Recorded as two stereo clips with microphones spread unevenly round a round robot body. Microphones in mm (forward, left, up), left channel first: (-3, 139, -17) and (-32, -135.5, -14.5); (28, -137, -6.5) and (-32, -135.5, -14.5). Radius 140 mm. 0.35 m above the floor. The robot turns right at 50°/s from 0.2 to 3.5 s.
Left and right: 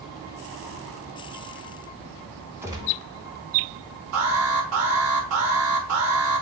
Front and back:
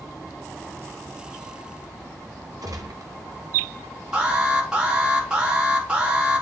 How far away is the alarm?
About 2.5 m.